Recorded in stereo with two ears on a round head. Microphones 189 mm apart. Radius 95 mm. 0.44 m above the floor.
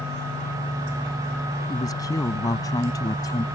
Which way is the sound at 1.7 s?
20° left (ahead or behind).